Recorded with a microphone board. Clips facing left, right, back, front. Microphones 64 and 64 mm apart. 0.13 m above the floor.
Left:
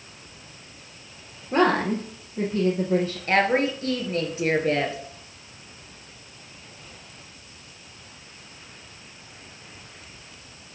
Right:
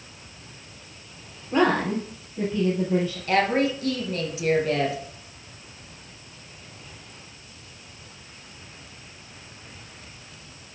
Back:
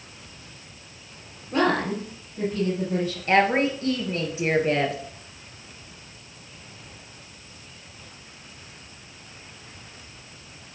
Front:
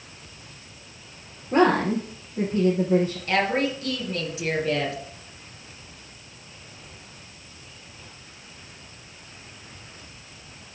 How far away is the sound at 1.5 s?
About 2.5 m.